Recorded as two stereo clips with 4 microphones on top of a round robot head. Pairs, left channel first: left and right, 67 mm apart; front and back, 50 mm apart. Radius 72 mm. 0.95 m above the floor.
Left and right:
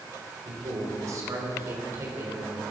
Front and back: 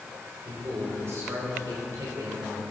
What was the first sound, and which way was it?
A man speaking, 125° right.